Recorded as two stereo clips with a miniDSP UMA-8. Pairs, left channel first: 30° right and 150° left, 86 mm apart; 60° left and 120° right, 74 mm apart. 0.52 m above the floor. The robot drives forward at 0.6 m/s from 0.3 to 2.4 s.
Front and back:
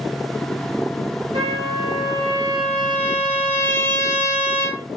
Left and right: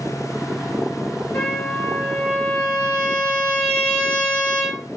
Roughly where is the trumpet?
Behind left.